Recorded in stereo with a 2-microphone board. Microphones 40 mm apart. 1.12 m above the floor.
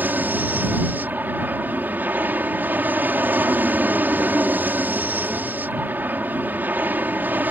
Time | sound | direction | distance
0.0 | an aircraft | 55° right (ahead or behind) | ?